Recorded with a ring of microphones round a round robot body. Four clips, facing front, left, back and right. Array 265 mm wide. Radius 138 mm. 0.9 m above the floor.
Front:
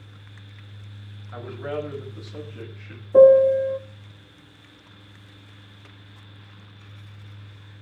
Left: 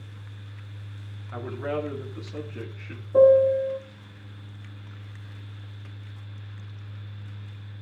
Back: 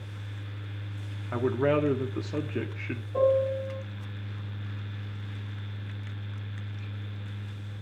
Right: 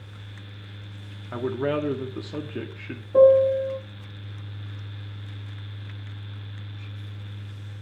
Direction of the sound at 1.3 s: 145° right.